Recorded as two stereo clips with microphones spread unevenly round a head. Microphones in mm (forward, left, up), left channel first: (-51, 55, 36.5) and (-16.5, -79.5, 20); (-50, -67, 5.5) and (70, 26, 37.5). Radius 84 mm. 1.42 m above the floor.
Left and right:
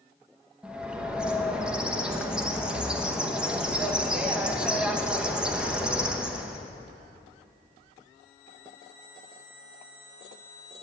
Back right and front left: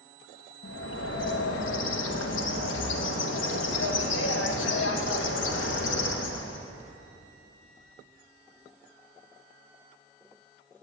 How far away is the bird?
About 0.9 m.